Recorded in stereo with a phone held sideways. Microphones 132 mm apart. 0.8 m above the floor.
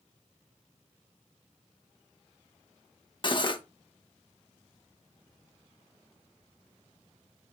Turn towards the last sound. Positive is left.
turn(degrees=40)  # may be behind; listen again after turning